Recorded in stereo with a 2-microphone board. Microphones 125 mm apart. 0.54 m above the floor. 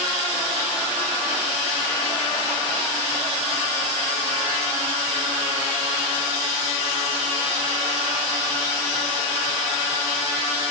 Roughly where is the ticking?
I don't hear ticking.